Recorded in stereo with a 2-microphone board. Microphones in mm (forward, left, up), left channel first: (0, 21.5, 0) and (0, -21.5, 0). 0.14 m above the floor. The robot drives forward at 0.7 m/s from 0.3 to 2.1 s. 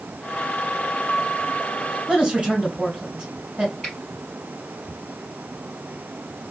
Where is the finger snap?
15° left (ahead or behind), 2.5 m.